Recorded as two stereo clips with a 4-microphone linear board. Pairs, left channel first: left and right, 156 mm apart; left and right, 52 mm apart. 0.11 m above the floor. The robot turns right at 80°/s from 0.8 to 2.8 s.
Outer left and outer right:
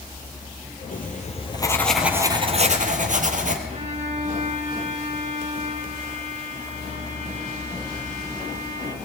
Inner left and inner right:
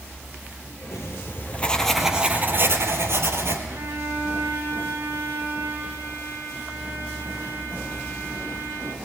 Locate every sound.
0.9 s writing: 95° left, 3 m; by 3.6 s 110° right, 3 m
3.7 s a violin: 45° right (ahead or behind), 3 m